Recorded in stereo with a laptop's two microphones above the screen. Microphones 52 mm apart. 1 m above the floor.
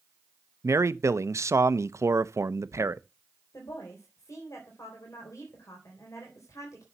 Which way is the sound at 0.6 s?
65° right (ahead or behind).